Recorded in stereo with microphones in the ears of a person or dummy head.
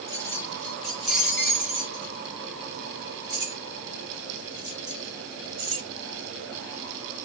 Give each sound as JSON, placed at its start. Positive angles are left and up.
{"t": 0.1, "sound": "keys jangling", "side_deg": 15, "distance_m": 1.2}